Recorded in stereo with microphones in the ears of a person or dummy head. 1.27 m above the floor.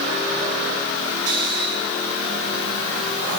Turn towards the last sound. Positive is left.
turn(degrees=-80)